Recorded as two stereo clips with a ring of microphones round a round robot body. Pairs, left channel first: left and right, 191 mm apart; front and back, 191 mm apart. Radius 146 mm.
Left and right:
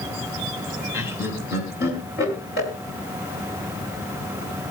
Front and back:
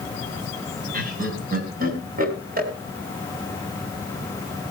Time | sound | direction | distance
0.9 | laughter | 135° left | 6 m